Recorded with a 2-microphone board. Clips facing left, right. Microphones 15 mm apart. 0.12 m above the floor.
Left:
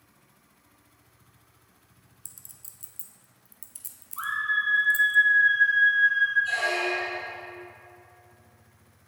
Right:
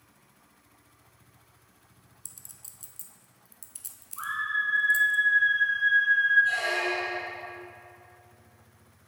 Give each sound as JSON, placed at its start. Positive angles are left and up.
{"t": 2.2, "sound": "a clink", "side_deg": -10, "distance_m": 0.8}
{"t": 4.2, "sound": "a scream", "side_deg": 25, "distance_m": 1.6}
{"t": 6.5, "sound": "a squeak", "side_deg": 20, "distance_m": 2.0}